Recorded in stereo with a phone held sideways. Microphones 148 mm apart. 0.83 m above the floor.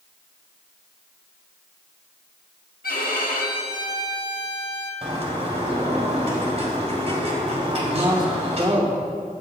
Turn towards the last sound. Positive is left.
turn(degrees=-35)  # may be behind; listen again after turning